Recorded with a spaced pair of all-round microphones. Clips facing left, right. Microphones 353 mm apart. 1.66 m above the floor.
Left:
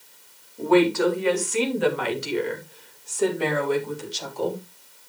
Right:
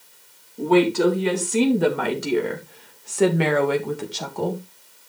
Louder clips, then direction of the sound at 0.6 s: Right 1 dB; 40° right (ahead or behind).